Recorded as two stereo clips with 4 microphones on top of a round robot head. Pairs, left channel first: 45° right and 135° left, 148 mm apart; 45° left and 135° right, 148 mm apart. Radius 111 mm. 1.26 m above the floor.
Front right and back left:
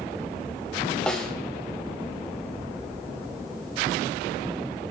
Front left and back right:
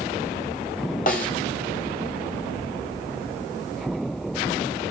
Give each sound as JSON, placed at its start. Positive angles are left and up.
{"t": 1.1, "sound": "a snare drum", "azimuth_deg": 35, "distance_m": 1.2}